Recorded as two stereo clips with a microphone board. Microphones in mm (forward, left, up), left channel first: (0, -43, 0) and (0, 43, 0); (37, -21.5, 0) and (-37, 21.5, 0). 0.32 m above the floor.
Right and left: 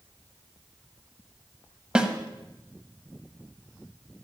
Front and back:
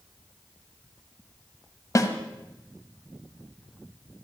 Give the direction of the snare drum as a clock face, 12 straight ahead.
12 o'clock.